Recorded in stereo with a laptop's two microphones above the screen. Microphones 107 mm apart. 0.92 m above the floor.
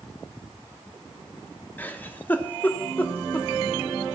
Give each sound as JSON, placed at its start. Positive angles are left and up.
{"t": 1.8, "sound": "a giggle", "side_deg": 15, "distance_m": 1.3}